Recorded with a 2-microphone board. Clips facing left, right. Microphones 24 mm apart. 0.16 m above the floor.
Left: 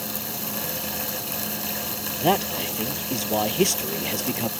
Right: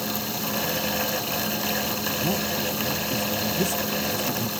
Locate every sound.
2.2 s a man speaking: 70° left (ahead or behind)